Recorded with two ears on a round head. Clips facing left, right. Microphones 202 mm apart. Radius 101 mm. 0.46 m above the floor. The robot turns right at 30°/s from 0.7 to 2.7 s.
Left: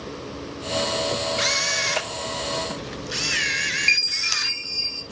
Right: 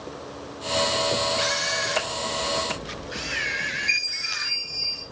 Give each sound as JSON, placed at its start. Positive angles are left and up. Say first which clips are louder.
{"t": 1.4, "sound": "a camera shutter", "louder": "even", "azimuth_deg": 30, "distance_m": 1.1}
{"t": 3.9, "sound": "a chime", "louder": "left 3 dB", "side_deg": 85, "distance_m": 3.5}